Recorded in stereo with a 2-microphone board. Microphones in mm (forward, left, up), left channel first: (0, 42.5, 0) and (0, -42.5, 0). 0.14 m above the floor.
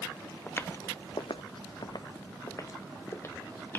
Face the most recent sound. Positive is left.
turn(degrees=25)  # may be behind; listen again after turning